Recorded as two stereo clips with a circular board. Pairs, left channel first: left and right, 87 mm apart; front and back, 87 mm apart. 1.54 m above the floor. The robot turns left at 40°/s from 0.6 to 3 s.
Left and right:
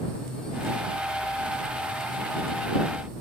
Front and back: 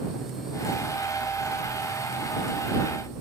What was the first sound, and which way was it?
Only background noise.